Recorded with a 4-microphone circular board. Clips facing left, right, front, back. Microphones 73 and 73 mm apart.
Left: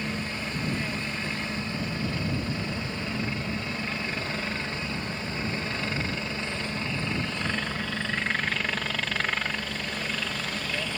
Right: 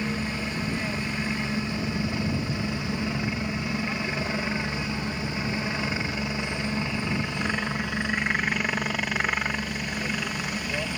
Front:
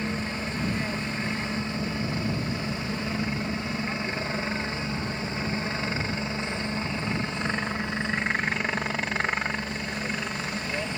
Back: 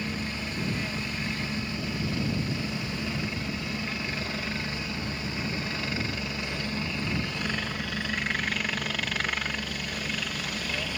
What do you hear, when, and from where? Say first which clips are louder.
0.0 s a helicopter: right 3 dB, front 3 dB; 35° right